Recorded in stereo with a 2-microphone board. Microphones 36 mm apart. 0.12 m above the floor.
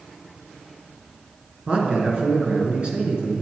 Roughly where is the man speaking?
Right.